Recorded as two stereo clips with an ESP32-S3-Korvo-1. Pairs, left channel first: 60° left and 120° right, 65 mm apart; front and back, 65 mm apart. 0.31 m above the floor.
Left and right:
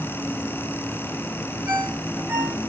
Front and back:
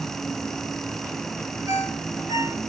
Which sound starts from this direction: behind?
A ringtone, at 1.7 s.